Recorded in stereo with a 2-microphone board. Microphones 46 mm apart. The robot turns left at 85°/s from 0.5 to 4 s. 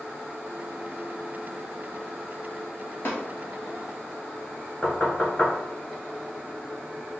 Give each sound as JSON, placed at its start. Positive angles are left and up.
{"t": 3.0, "sound": "tapping", "side_deg": 60, "distance_m": 1.5}
{"t": 4.8, "sound": "knocking", "side_deg": 35, "distance_m": 1.1}